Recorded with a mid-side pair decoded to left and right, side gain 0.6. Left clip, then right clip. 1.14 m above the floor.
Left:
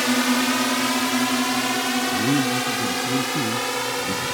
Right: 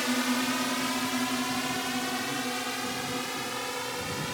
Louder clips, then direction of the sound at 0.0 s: Left 8 dB; 40° left.